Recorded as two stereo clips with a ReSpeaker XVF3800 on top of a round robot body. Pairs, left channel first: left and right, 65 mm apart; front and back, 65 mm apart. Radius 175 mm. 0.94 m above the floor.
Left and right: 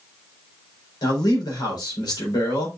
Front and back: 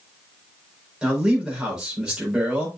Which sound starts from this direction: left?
A man speaking, at 1.0 s.